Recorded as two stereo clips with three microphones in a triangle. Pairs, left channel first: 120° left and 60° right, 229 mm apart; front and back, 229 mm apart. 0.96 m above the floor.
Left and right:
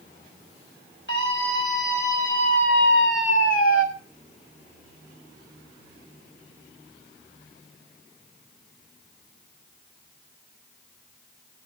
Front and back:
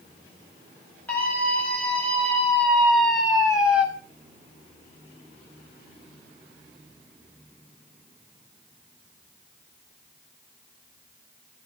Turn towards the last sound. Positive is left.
turn(degrees=95)